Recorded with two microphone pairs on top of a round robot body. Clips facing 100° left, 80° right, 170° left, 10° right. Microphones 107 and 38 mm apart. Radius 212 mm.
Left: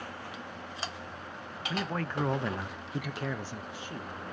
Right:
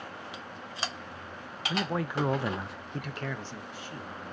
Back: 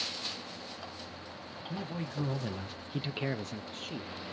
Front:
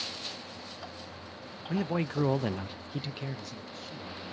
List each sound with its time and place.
1.7 s a man speaking: 5° right, 0.8 m; by 4.2 s 170° left, 0.9 m